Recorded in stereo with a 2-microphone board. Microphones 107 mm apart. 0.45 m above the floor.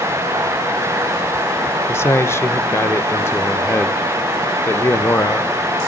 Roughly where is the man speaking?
Left.